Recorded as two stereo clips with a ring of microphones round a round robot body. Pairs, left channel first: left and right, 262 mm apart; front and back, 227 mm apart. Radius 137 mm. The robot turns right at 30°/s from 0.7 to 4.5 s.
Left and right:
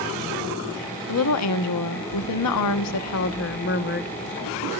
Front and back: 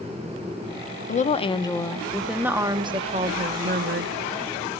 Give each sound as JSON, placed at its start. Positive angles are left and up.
{"t": 1.1, "sound": "a woman speaking", "azimuth_deg": 55, "distance_m": 1.2}